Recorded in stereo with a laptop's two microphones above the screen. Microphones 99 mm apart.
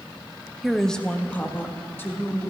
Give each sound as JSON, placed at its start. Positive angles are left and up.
{"t": 0.6, "sound": "a woman speaking", "side_deg": 0, "distance_m": 0.9}